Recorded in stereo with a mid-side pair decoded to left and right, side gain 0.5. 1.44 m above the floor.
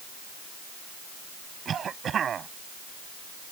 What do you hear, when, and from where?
1.6 s a cough: 50° right